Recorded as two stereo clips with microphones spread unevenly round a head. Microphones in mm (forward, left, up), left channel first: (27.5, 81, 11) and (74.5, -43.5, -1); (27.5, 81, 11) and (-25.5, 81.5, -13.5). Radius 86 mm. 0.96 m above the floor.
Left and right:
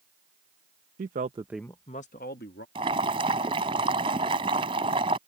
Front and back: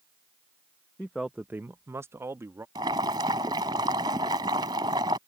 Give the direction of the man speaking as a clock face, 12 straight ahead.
3 o'clock.